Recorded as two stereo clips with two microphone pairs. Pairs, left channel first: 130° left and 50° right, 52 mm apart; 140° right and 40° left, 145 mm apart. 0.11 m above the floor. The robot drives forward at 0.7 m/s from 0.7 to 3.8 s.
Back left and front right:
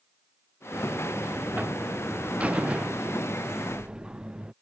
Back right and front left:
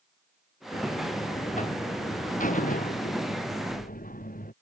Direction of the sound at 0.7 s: 100° right.